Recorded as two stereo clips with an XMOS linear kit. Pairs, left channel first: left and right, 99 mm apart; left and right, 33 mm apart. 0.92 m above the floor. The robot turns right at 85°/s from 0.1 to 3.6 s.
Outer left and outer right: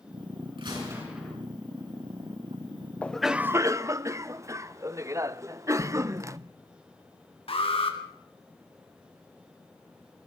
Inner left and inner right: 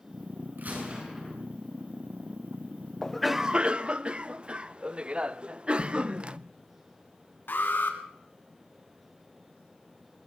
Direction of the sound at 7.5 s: 70° left (ahead or behind).